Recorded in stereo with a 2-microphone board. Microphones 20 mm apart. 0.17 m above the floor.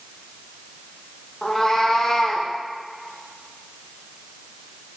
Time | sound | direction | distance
1.4 | a cat meowing | 20° left (ahead or behind) | 1.9 m